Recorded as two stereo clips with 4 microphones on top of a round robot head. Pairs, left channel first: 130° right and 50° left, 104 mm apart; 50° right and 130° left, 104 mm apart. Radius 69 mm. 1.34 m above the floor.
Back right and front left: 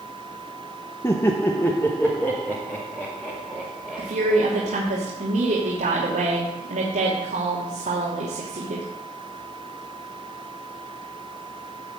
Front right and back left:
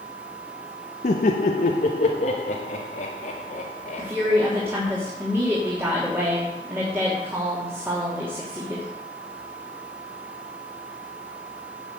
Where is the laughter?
60° right, 0.9 m; by 4.8 s 50° right, 3 m.